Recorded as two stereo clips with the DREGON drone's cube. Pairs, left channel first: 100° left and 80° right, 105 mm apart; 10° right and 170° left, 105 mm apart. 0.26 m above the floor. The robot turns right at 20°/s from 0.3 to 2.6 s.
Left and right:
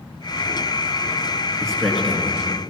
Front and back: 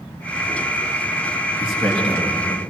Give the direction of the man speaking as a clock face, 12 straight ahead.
6 o'clock.